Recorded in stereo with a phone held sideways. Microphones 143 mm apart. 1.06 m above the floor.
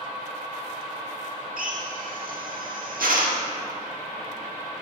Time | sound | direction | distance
1.6 | a drill | 75° right (ahead or behind) | 1.6 m